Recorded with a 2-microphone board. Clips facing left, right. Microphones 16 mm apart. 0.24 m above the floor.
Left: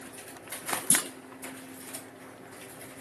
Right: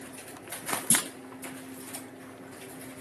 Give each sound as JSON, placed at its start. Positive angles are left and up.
{"t": 0.9, "sound": "a clunk", "side_deg": -55, "distance_m": 0.7}